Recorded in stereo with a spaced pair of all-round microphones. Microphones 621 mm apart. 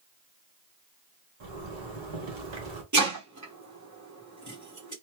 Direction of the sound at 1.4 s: 45° right (ahead or behind).